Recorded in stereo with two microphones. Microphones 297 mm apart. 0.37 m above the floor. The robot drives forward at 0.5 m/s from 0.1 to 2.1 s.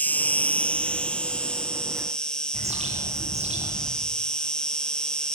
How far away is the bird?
About 8 m.